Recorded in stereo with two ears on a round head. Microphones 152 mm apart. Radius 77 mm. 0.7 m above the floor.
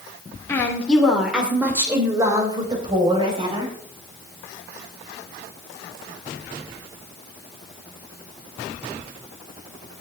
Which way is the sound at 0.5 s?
15° left (ahead or behind).